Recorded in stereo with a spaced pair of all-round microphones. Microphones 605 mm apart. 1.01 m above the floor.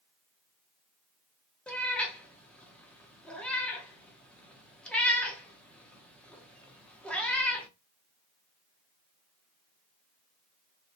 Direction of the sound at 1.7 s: Centre (ahead or behind).